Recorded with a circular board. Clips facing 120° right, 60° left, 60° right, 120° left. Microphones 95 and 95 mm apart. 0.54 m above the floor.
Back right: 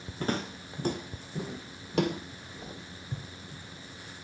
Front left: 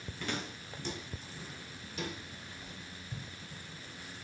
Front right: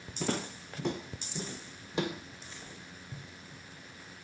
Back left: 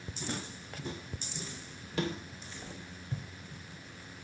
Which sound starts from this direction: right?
Footsteps, at 0.2 s.